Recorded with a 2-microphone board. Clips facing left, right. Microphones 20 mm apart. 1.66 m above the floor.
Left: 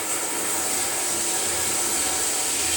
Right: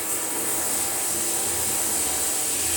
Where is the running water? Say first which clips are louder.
Left 2 dB; 25° left (ahead or behind), 2.0 m.